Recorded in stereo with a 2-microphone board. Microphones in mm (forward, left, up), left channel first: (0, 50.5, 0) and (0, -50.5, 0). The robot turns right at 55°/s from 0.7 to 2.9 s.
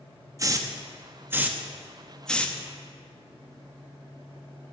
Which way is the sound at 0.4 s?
30° right (ahead or behind).